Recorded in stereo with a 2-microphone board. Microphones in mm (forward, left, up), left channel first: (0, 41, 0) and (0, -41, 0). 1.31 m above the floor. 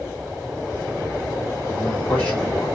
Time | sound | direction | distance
1.7 | a man speaking | 15° left (ahead or behind) | 3 m